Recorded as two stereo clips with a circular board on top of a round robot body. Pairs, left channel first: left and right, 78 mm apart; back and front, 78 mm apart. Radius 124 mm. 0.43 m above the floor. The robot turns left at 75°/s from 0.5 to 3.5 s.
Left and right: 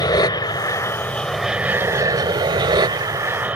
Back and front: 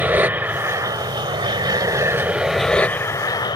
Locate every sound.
0.0 s an aircraft: 65° left; by 3.6 s 160° right